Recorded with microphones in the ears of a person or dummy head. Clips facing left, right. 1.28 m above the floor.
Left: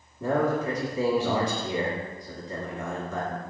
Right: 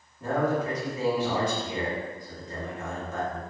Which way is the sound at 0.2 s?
70° left (ahead or behind).